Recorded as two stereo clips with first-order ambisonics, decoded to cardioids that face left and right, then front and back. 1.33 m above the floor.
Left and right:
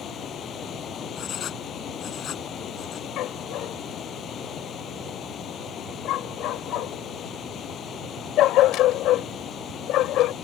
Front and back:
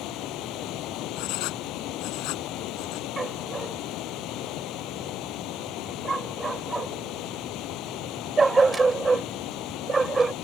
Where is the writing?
30° left.